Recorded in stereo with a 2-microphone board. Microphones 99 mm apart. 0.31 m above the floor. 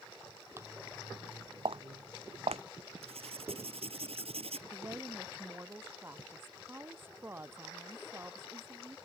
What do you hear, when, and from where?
0.6 s footsteps: 30° right (ahead or behind); by 2.6 s 80° right
3.0 s writing: 80° right
4.7 s a woman speaking: 25° right (ahead or behind)